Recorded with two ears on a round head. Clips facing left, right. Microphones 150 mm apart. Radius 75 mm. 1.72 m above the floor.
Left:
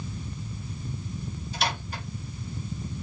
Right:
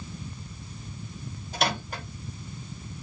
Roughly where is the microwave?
Right.